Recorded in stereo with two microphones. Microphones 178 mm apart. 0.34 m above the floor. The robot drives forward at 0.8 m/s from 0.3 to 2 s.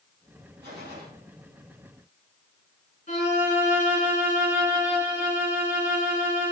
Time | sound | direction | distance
0.6 | a gunshot | 65° right (ahead or behind) | 4.5 m
3.1 | a violin | 45° left (ahead or behind) | 4.5 m